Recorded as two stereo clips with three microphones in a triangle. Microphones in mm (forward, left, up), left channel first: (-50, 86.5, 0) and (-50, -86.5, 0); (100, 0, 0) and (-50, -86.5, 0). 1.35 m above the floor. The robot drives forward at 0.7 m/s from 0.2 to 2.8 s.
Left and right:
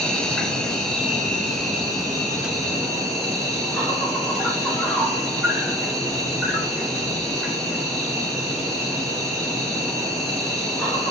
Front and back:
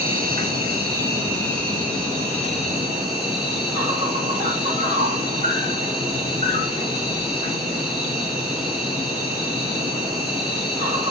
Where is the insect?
175° left, 0.8 m; by 11.1 s straight behind, 2.5 m.